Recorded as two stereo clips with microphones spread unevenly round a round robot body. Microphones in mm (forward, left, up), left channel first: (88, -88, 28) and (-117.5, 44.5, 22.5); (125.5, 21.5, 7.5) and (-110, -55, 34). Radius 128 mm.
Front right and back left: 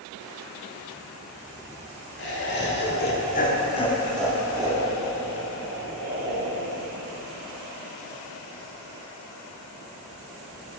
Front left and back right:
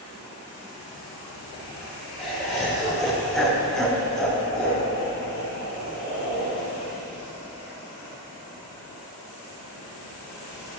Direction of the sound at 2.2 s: 70° right.